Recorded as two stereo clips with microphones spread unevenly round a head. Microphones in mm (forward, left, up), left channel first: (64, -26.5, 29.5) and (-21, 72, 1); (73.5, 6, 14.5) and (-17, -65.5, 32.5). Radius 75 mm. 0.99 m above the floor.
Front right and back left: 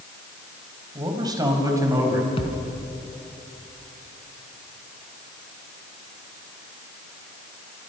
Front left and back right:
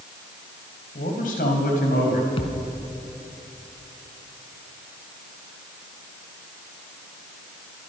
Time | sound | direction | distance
0.9 | a man speaking | 70° left | 4.5 m
2.4 | a thud | 5° right | 3 m